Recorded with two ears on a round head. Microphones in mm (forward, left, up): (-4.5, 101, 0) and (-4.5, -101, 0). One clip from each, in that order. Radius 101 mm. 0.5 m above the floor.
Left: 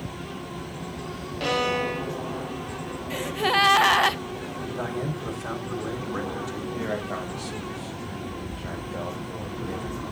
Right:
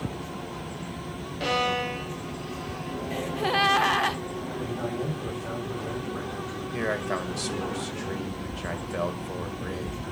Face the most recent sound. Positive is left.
turn(degrees=-60)  # may be behind; listen again after turning